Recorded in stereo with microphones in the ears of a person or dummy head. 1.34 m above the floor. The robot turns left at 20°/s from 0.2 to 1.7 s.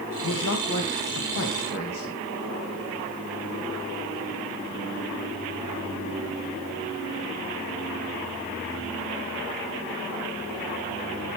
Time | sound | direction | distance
0.2 | a man speaking | 80° left | 1.8 m